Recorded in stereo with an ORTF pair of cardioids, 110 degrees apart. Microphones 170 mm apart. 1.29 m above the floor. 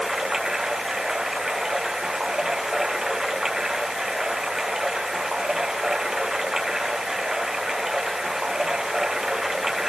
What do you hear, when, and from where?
0.0 s running water: straight ahead